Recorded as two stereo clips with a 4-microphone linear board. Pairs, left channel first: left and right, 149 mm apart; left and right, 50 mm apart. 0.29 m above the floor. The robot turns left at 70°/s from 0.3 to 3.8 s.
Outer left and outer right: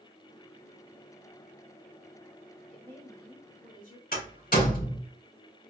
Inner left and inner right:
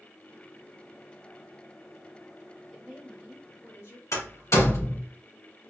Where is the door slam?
70° left (ahead or behind), 3 m.